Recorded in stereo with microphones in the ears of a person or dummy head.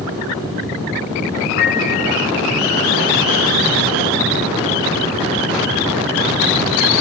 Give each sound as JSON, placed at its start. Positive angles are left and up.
{"t": 1.6, "sound": "a piano", "side_deg": 55, "distance_m": 7.0}